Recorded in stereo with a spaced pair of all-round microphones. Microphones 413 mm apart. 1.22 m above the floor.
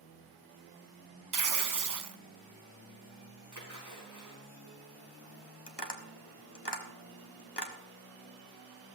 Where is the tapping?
70° left (ahead or behind), 1.5 m.